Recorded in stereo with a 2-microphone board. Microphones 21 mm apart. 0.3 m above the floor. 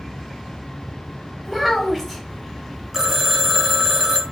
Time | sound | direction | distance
1.4 | a child speaking | 5° right (ahead or behind) | 1.4 m
2.9 | a phone ringing | 20° right (ahead or behind) | 0.5 m